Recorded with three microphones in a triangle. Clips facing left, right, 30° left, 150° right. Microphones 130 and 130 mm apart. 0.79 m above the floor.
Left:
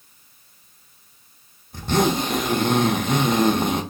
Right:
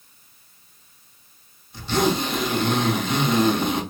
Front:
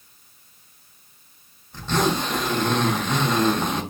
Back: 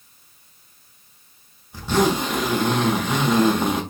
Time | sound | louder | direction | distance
1.7 | a zipper | left 1 dB, back 3 dB | 130° left | 0.8 m